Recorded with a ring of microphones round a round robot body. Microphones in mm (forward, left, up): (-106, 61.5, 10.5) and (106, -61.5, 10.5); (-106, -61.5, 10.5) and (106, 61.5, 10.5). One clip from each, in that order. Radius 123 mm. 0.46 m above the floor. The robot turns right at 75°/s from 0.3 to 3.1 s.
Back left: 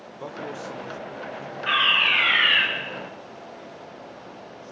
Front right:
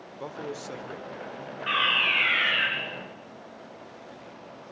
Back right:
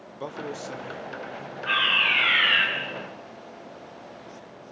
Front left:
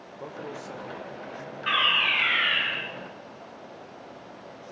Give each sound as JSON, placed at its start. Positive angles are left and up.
{"t": 0.1, "sound": "a man speaking", "azimuth_deg": -110, "distance_m": 1.1}
{"t": 1.7, "sound": "a fire alarm", "azimuth_deg": 65, "distance_m": 6.5}